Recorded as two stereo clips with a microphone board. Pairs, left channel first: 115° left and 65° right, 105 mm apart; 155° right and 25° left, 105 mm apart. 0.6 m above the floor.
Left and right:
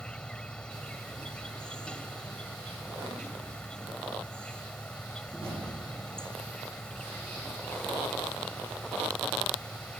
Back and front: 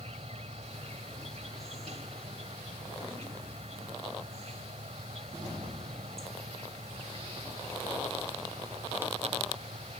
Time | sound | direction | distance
0.0 | an insect | 30° left | ?